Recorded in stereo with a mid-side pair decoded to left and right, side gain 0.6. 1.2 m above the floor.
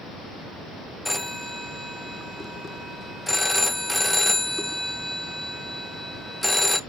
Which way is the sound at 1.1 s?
Straight ahead.